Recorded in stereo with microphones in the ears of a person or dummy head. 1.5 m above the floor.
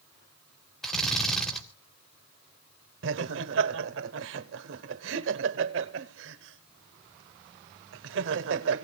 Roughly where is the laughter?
Right.